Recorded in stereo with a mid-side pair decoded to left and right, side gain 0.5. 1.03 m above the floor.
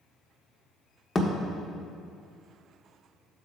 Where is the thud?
30° left, 1.3 m.